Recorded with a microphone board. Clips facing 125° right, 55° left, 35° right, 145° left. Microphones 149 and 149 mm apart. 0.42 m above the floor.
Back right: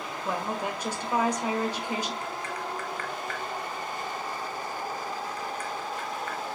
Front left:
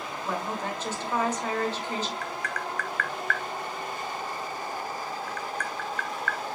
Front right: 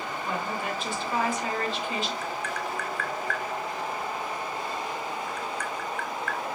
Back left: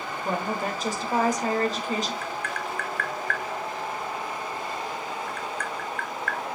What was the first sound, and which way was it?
A woman speaking, 165° left.